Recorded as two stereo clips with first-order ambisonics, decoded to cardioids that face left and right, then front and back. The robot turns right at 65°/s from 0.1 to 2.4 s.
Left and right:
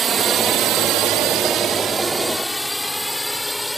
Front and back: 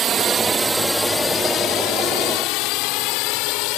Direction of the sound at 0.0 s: 140° right.